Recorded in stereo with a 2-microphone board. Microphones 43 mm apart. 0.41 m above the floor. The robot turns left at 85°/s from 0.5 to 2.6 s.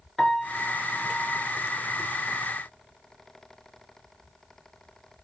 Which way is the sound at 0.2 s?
10° left.